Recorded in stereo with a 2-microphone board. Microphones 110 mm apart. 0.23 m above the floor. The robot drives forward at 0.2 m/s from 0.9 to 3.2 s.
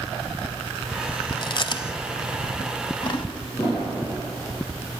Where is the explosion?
35° left (ahead or behind), 4.5 m.